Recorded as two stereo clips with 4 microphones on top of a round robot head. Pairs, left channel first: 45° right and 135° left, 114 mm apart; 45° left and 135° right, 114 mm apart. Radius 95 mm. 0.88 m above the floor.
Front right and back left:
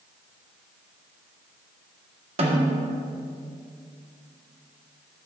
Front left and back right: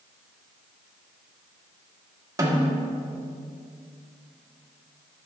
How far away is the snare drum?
About 1.9 m.